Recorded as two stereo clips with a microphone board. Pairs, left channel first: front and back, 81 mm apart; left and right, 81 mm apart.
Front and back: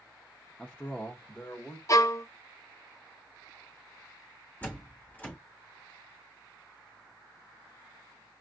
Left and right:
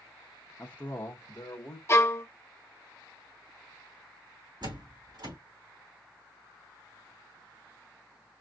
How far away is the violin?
About 0.6 m.